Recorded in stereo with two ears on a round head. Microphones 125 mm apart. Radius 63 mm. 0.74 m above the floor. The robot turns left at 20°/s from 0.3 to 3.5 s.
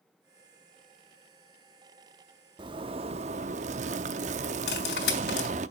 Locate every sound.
2.6 s a zipper: 30° right (ahead or behind), 0.7 m; by 5.7 s 50° right (ahead or behind), 0.7 m
4.7 s cutlery clinking: 80° left, 3 m